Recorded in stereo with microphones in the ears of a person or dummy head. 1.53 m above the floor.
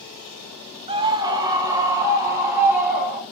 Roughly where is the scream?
Right.